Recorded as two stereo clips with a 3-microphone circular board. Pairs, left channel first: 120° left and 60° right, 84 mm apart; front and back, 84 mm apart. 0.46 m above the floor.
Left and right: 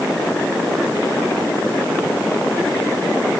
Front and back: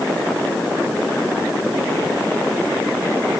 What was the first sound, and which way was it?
Only background noise.